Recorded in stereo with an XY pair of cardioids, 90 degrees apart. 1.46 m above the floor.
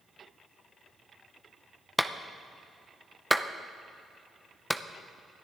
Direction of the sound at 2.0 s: Straight ahead.